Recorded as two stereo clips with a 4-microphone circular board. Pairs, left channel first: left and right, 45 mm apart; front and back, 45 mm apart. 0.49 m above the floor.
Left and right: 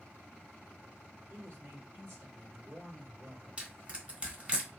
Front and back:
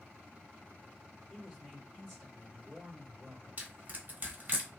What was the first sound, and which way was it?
A man speaking, 85° right.